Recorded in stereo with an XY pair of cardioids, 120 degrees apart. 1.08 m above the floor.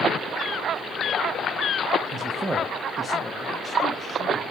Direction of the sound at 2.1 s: 45° right.